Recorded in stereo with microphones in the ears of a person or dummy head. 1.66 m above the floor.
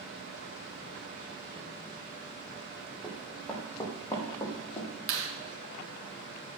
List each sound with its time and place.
3.0 s running footsteps: centre (ahead or behind), 3.5 m; by 4.9 s 30° left (ahead or behind), 3.5 m
5.1 s a clap: 75° right (ahead or behind), 2.5 m